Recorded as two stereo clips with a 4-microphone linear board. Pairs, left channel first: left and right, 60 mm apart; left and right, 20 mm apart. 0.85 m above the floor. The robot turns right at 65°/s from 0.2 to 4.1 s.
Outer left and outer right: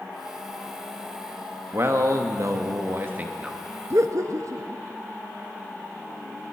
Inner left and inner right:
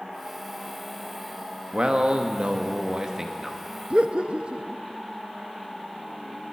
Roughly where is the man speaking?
Behind right.